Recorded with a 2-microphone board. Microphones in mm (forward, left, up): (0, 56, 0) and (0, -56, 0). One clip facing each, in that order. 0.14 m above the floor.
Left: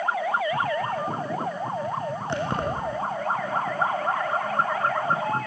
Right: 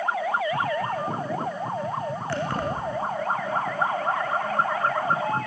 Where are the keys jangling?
20° left (ahead or behind), 5 m.